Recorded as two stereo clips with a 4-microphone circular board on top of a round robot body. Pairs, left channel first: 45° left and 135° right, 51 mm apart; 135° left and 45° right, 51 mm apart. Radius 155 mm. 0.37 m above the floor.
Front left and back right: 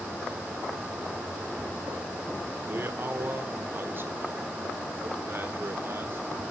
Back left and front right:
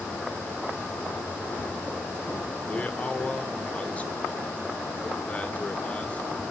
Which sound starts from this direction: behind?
A man speaking, at 2.7 s.